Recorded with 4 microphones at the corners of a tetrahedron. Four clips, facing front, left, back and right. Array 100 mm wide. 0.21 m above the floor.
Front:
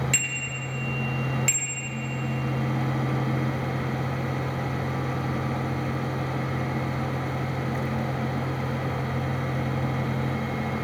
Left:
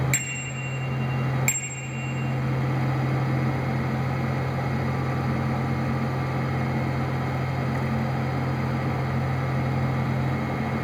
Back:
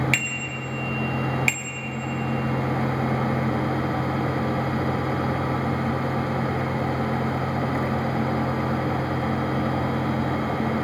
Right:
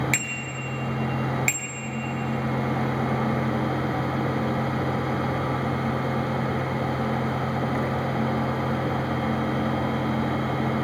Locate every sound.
0.1 s a bicycle bell: 155° left, 3.5 m